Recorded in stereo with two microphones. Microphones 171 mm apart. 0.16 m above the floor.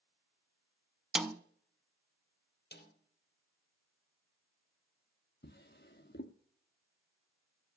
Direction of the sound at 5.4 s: 70° left (ahead or behind).